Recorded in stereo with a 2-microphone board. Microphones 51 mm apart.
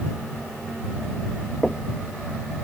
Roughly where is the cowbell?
I don't hear a cowbell.